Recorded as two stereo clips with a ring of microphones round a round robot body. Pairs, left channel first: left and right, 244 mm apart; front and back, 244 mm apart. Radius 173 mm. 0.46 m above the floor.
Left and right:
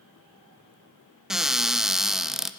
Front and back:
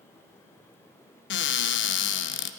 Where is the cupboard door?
5° right, 0.5 m.